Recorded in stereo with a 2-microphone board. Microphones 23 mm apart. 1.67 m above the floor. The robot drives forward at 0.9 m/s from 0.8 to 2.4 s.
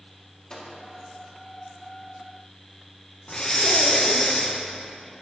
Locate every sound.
0.5 s a microwave: 30° left (ahead or behind), 3 m
3.3 s breathing: 30° left (ahead or behind), 0.9 m